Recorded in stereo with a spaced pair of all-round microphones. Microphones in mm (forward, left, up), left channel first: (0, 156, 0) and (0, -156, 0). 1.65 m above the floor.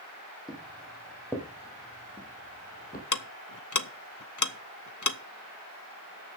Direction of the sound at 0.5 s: Centre (ahead or behind).